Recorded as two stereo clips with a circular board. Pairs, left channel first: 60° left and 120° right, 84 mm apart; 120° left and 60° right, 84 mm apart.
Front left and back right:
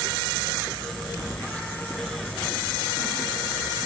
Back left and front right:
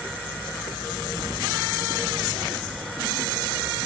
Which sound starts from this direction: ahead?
Keys jangling, at 1.2 s.